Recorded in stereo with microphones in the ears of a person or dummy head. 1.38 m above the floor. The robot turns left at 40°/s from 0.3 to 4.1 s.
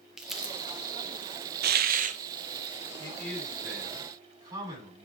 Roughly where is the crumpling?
Centre.